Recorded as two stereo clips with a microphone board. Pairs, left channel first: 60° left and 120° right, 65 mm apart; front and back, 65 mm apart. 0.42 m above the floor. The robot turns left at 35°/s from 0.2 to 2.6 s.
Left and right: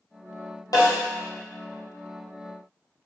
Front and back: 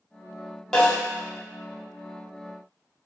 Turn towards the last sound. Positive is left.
turn(degrees=20)